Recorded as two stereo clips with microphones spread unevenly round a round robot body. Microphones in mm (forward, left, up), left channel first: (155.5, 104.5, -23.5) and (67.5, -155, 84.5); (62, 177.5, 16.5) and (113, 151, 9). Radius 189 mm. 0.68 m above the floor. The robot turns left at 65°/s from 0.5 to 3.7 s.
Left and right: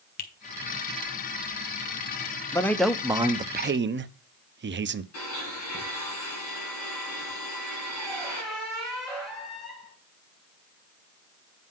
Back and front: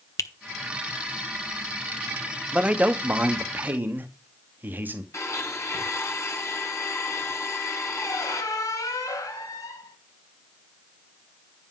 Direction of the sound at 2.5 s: 30° left.